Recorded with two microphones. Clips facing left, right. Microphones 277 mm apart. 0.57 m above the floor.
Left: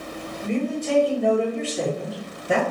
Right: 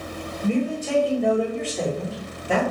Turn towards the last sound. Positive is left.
turn(degrees=30)  # may be behind; listen again after turning